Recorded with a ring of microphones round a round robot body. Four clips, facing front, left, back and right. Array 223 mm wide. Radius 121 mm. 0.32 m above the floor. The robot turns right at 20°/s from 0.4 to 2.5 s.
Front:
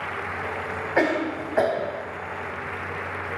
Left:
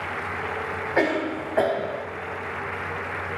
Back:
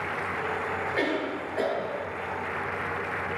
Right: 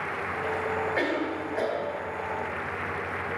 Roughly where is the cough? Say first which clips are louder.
Left 4 dB, front 8 dB; ahead left.